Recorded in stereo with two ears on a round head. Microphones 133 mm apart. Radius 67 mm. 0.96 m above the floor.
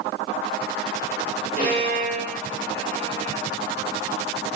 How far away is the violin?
About 3.5 m.